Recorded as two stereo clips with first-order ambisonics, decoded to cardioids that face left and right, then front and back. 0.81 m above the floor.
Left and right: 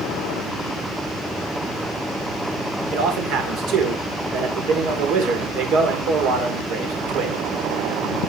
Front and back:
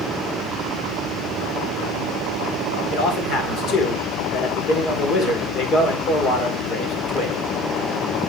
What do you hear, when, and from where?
2.9 s a man speaking: 50° right, 2 m